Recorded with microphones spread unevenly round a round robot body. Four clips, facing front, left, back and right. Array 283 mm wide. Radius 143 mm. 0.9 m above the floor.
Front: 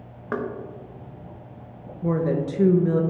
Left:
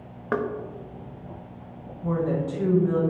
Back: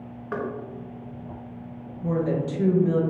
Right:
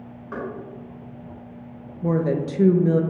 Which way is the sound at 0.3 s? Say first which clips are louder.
Left 6 dB, front 2 dB; 65° left.